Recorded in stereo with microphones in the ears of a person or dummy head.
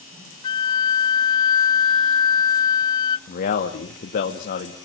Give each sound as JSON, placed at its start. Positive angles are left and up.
{"t": 0.4, "sound": "a flute", "side_deg": 20, "distance_m": 0.5}
{"t": 3.3, "sound": "a man speaking", "side_deg": 50, "distance_m": 2.0}